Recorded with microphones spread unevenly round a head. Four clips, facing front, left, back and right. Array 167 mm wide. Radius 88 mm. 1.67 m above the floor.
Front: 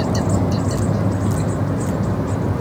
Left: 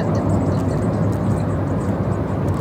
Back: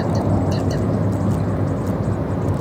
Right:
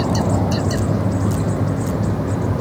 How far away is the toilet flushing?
I don't hear a toilet flushing.